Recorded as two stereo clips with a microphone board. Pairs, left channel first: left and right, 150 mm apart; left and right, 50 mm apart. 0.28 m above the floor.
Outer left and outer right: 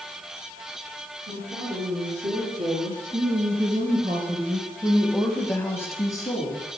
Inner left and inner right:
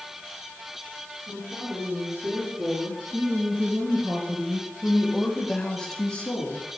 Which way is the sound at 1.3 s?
45° right (ahead or behind).